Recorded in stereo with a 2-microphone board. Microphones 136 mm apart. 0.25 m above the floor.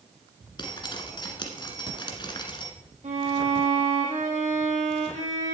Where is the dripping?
35° left (ahead or behind), 1.6 m.